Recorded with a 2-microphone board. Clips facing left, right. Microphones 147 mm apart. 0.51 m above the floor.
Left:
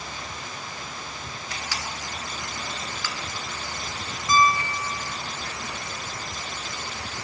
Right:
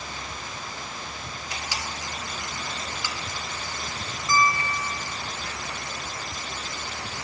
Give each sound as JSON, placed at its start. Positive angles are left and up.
{"t": 1.5, "sound": "a camera shutter", "side_deg": -20, "distance_m": 1.5}
{"t": 4.3, "sound": "a piano", "side_deg": 20, "distance_m": 0.6}